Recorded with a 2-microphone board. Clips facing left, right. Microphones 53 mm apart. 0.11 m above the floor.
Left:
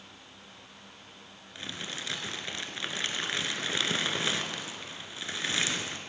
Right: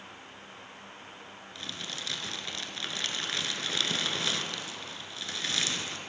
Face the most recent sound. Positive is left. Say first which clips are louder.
# left 2 dB
turn(degrees=25)  # may be behind; listen again after turning